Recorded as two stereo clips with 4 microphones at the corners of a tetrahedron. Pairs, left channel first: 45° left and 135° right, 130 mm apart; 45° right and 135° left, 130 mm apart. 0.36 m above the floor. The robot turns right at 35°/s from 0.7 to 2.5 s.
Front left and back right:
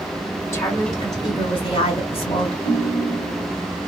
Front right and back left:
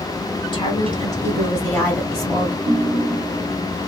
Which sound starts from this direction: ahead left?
A ringtone, at 2.6 s.